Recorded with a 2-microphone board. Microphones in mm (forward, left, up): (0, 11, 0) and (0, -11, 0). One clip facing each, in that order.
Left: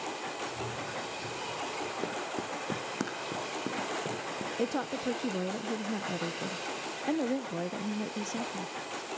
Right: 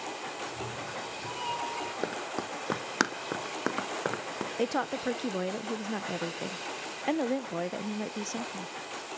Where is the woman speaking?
25° right (ahead or behind), 0.6 m.